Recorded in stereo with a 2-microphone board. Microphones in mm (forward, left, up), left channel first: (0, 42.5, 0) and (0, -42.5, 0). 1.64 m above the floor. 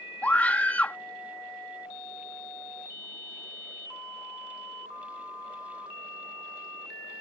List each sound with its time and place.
0.2 s a scream: 20° left (ahead or behind)